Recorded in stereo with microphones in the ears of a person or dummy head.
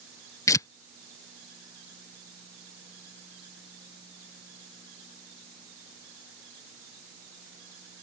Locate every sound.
0.5 s tearing paper: 20° left (ahead or behind)